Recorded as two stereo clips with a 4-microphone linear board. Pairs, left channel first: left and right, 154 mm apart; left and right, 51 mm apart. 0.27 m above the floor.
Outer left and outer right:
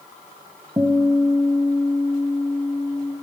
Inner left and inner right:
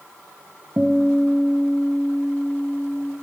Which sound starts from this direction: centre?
A guitar, at 0.8 s.